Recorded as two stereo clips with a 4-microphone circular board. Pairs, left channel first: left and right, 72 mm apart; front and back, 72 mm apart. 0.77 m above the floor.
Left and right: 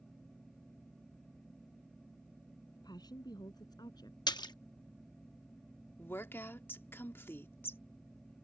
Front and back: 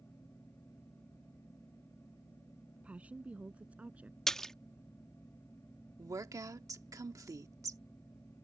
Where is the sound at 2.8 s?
105° left.